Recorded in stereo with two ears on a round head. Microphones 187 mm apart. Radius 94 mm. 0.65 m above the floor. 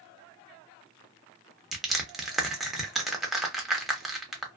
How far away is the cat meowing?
I don't hear a cat meowing.